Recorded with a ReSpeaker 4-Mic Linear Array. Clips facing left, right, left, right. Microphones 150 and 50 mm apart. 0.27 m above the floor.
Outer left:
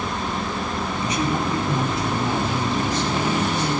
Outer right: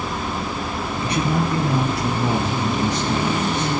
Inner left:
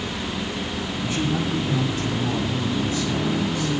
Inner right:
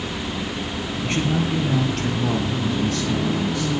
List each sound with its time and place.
1.0 s a man speaking: 60° right (ahead or behind), 3.5 m; by 3.7 s 75° right (ahead or behind), 6.5 m